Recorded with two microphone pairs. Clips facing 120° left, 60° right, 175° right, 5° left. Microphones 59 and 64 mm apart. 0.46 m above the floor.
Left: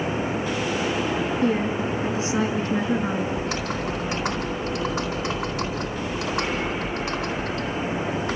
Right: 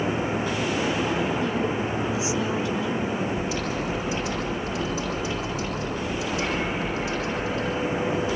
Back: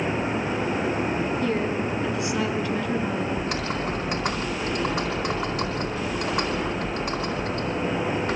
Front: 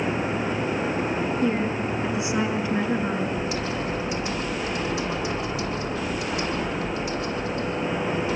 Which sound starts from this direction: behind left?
Typing on a keyboard, at 3.4 s.